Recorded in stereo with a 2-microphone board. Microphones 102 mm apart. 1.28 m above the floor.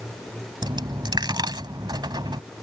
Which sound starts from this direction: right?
A dropped coin, at 0.6 s.